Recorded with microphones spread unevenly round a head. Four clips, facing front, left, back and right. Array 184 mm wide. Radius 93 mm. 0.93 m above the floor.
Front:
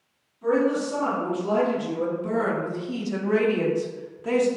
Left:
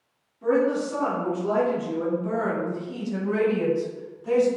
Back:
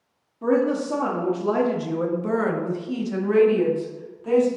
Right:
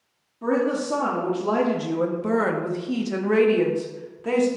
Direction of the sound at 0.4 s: 150° right.